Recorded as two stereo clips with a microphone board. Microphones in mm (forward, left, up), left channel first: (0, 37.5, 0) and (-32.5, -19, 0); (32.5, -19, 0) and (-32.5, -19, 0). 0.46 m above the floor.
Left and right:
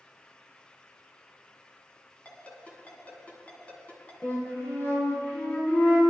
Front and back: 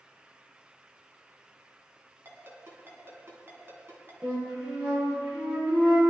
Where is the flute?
120° left, 6 m.